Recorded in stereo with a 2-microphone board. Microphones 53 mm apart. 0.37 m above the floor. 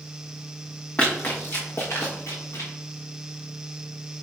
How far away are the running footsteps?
About 1.1 m.